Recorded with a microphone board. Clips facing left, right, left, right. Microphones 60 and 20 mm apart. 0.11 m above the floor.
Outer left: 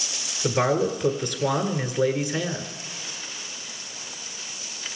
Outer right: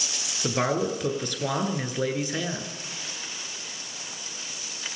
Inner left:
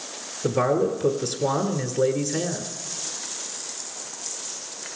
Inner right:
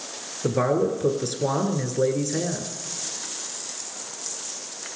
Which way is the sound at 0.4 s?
5° left (ahead or behind).